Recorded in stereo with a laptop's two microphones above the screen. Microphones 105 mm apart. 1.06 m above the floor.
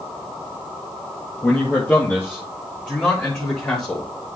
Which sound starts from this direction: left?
A man speaking, at 1.4 s.